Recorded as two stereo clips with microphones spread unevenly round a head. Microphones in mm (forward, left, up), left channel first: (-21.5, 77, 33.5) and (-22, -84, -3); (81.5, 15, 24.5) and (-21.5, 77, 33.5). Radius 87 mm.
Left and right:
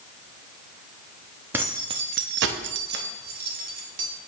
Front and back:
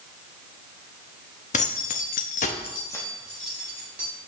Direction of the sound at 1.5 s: 10° right.